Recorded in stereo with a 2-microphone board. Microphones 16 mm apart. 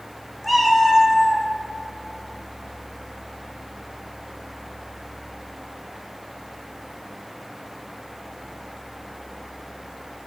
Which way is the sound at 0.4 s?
10° left (ahead or behind).